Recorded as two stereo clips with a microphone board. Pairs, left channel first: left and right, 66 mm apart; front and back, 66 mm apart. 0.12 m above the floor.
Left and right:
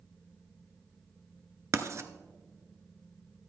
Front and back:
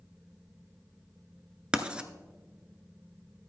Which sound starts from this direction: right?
Writing, at 1.7 s.